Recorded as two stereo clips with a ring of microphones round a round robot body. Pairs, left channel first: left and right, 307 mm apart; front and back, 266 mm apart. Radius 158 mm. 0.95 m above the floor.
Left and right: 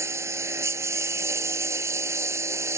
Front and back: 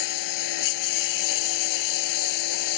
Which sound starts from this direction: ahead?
A lawn mower, at 0.0 s.